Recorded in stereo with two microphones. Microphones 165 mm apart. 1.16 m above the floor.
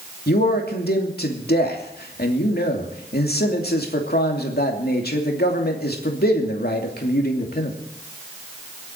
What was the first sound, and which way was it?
A man speaking, 75° left (ahead or behind).